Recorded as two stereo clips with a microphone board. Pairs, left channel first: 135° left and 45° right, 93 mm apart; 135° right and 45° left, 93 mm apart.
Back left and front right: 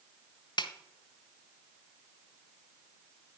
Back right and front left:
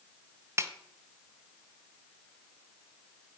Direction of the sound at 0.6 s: 105° left.